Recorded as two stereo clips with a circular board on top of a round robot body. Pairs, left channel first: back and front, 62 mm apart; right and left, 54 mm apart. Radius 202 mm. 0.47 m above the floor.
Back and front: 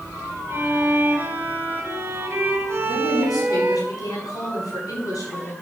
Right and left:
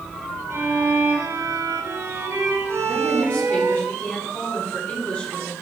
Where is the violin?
55° left, 2 m.